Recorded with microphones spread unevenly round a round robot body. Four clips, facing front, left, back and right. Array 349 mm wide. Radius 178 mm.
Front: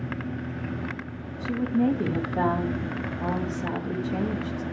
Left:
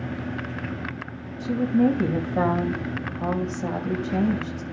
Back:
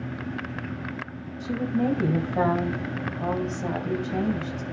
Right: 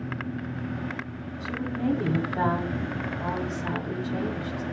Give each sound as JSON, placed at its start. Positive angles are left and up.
{"t": 1.4, "sound": "a woman speaking", "azimuth_deg": 95, "distance_m": 2.5}